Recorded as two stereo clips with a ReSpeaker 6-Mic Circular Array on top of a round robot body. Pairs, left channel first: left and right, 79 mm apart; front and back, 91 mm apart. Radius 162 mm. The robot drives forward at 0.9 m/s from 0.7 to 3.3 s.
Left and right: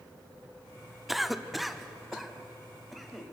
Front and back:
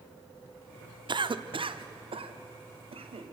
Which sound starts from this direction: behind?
A cough, at 1.1 s.